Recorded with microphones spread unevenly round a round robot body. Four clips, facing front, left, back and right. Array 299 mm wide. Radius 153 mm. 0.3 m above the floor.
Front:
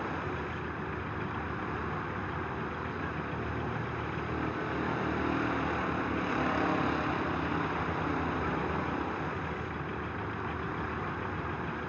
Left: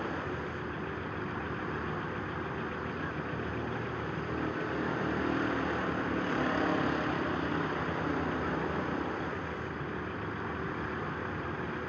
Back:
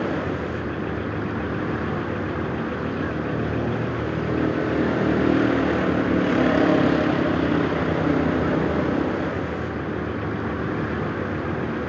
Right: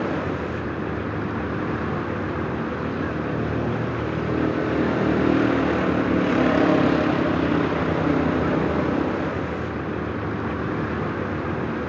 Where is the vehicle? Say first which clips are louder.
Right 11 dB, back 10 dB; 130° right.